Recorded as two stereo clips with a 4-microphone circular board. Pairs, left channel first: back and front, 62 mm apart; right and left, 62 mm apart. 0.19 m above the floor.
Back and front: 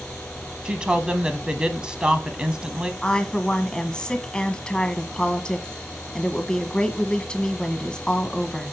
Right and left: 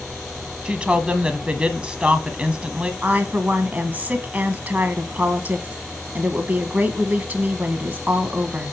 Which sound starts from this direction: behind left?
A woman speaking, at 3.0 s.